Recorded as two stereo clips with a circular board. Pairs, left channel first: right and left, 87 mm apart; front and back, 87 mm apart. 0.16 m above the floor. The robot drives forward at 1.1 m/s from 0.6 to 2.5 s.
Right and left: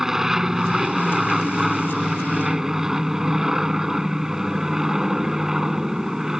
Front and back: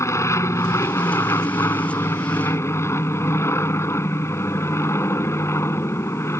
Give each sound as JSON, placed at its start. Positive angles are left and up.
{"t": 0.0, "sound": "an aircraft", "azimuth_deg": 10}